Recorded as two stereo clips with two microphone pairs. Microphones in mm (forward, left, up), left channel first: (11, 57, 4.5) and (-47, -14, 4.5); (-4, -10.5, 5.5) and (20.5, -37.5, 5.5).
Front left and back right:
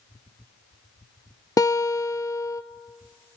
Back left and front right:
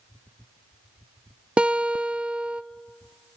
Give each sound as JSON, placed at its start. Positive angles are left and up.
{"t": 1.6, "sound": "a guitar", "azimuth_deg": 5, "distance_m": 0.7}